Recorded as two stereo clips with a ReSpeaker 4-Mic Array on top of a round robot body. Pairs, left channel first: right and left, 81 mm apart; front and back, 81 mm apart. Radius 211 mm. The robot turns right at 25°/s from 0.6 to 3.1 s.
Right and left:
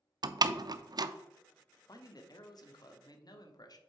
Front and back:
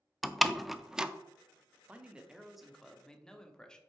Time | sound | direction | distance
0.2 | a door slam | 90° left | 0.7 m
1.9 | a man speaking | 110° right | 1.3 m